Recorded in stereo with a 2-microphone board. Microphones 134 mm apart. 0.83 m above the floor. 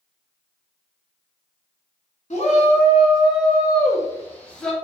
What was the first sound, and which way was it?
A shout, 55° left (ahead or behind).